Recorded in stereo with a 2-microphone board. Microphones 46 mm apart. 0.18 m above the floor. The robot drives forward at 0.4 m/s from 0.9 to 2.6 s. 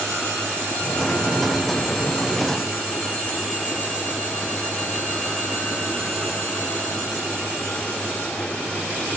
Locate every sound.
Only background noise.